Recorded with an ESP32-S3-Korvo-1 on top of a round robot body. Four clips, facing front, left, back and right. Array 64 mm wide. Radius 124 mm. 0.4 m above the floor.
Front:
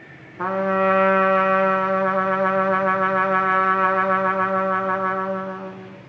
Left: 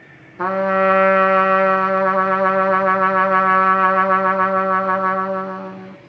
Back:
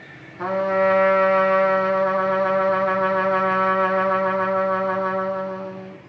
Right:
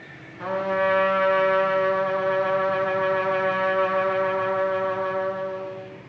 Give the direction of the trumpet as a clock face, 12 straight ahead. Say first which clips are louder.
Left 7 dB, even; 10 o'clock.